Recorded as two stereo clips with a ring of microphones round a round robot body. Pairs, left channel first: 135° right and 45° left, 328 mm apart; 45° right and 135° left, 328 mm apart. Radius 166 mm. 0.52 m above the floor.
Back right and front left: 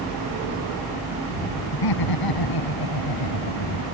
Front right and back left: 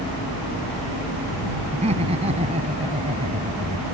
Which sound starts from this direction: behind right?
Laughter, at 1.7 s.